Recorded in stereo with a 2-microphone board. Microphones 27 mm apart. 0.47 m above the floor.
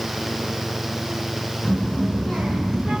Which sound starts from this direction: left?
A child speaking, at 1.6 s.